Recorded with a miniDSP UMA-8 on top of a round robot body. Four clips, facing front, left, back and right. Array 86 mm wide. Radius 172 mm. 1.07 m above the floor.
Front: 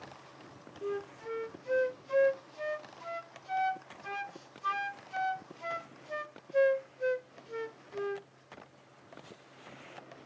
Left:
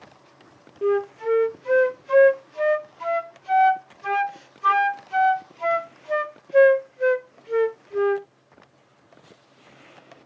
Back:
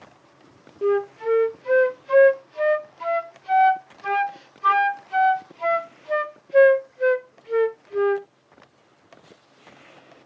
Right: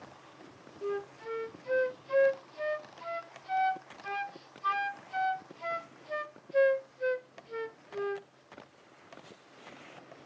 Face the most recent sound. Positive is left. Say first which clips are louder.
# left 14 dB, back 16 dB
turn(degrees=140)